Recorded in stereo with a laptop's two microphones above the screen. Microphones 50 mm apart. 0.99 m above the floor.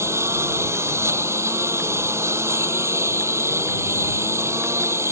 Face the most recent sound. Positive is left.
turn(degrees=-70)  # may be behind; listen again after turning